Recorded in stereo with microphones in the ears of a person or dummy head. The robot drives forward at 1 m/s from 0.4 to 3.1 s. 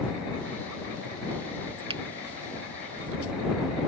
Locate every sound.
1.9 s a finger snap: 25° right (ahead or behind)